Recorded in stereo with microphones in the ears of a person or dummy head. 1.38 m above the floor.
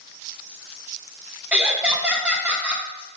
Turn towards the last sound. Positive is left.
turn(degrees=-10)  # may be behind; listen again after turning